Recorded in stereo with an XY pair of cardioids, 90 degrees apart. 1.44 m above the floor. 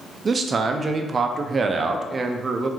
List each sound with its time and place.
0.2 s a man speaking: 40° right, 0.6 m